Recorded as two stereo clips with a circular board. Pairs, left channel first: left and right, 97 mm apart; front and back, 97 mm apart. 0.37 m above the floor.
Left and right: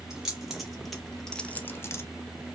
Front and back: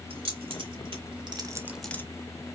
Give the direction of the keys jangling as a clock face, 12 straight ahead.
6 o'clock.